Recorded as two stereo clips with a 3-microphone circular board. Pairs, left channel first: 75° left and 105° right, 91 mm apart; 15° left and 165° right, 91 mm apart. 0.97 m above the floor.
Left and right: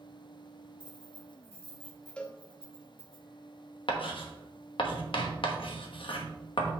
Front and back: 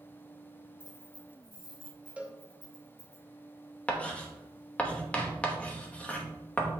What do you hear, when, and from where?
0.8 s keys jangling: 70° left, 3.5 m; by 3.2 s 60° left, 6 m
2.2 s a cowbell: 140° left, 0.7 m
3.9 s writing: 90° left, 1.0 m